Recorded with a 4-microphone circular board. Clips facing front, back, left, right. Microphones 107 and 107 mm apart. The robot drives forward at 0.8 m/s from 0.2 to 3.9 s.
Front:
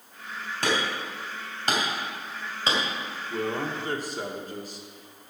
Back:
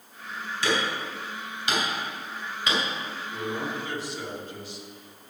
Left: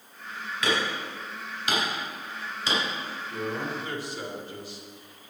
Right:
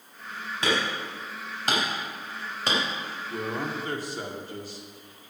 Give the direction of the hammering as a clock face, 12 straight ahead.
1 o'clock.